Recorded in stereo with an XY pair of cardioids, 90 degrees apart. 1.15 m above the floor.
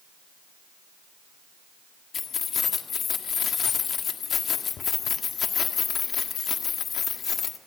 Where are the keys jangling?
60° left, 1.5 m.